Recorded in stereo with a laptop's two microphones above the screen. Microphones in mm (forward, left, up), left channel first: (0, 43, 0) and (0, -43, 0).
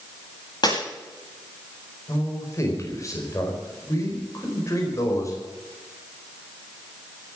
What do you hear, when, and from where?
0.6 s breaking glass: 55° left (ahead or behind), 8.5 m
2.1 s a man speaking: 35° left (ahead or behind), 4.5 m